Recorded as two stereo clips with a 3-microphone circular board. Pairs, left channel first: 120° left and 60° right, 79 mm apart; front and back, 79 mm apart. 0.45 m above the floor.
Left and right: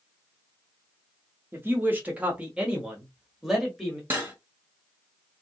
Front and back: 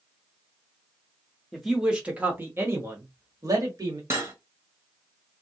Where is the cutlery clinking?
120° right, 1.2 m.